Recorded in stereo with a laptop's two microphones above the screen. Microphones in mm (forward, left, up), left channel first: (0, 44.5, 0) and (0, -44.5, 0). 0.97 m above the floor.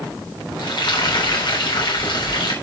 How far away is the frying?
About 3.5 m.